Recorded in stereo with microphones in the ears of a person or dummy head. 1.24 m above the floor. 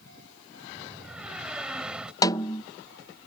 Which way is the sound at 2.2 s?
25° left (ahead or behind).